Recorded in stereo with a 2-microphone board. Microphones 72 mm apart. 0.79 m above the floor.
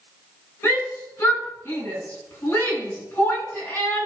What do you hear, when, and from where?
0.6 s a shout: 40° left (ahead or behind), 9 m